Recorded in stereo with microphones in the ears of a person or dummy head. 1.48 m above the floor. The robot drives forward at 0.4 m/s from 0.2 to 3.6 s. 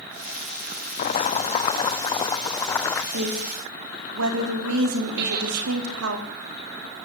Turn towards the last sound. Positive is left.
turn(degrees=-40)  # may be behind; listen again after turning